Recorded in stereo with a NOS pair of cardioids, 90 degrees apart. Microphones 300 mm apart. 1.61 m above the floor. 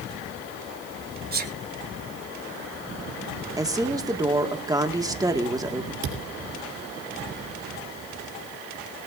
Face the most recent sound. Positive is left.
turn(degrees=-60)